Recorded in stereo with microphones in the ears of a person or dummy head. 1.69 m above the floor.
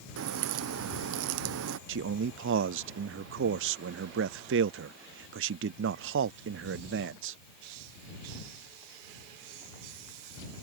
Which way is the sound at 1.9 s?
60° right (ahead or behind).